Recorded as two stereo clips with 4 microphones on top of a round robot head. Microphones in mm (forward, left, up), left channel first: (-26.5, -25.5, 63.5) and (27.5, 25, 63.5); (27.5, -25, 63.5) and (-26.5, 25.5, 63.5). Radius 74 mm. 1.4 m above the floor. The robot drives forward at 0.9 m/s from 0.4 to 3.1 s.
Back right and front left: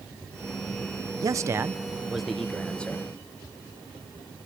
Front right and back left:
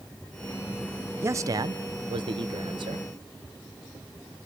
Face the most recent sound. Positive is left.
turn(degrees=150)